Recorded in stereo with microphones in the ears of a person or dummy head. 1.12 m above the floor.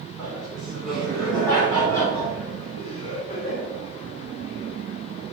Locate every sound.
0.2 s laughter: 10° right (ahead or behind), 3.5 m; by 3.6 s 25° left (ahead or behind), 4 m